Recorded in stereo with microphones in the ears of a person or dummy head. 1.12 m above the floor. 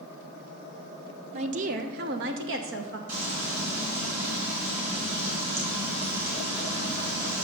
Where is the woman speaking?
35° right (ahead or behind), 0.9 m; by 3.0 s 65° right (ahead or behind), 1.1 m.